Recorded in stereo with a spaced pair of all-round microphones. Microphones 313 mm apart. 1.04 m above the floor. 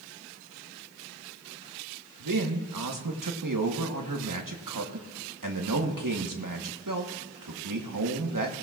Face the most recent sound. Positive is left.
turn(degrees=-80)